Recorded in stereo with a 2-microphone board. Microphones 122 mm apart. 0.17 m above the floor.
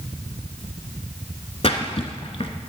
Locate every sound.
1.6 s a splash: 55° left (ahead or behind), 1.0 m